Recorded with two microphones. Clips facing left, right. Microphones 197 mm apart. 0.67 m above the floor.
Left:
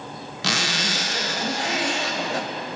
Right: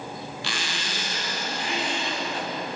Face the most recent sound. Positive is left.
turn(degrees=70)  # may be behind; listen again after turning